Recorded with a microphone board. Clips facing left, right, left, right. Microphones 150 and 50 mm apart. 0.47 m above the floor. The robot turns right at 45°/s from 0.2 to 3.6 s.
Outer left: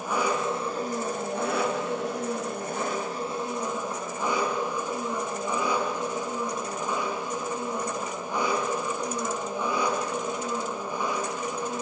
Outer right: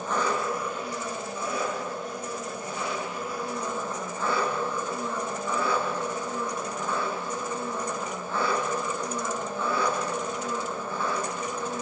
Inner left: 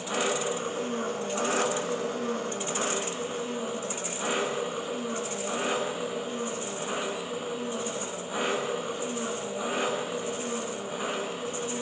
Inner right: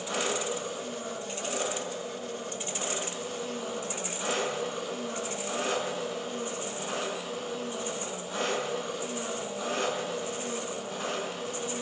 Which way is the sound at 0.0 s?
10° left.